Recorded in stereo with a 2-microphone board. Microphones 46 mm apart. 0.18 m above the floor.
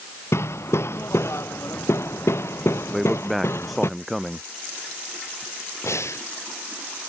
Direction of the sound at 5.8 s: 85° left.